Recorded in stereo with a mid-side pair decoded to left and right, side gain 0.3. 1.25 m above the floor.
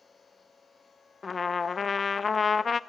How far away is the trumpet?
About 0.7 m.